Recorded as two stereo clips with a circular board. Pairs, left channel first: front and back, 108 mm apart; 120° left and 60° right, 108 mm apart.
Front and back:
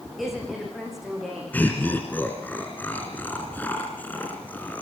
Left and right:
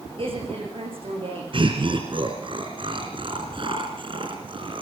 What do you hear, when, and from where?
0.2 s a woman speaking: 90° right, 10 m
1.5 s laughter: 70° right, 2.5 m